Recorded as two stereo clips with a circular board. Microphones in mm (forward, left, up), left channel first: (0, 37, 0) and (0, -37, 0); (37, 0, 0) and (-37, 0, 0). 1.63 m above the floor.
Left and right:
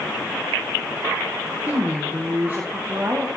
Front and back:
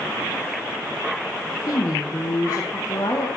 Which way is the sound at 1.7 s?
25° right.